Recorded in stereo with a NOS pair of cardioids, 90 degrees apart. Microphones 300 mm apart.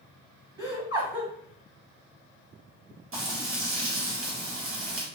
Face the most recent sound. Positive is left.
turn(degrees=-45)